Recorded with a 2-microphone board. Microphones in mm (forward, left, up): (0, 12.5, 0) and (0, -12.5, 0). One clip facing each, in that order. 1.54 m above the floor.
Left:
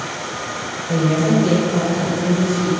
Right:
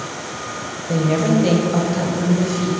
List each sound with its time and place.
0.9 s a woman speaking: 20° right (ahead or behind), 1.1 m; by 2.7 s 50° right (ahead or behind), 1.9 m